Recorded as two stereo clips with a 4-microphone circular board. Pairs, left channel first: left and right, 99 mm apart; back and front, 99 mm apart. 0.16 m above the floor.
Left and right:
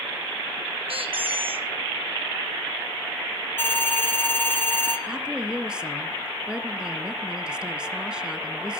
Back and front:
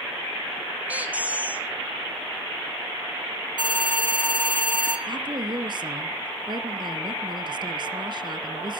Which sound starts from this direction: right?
A squeak, at 0.9 s.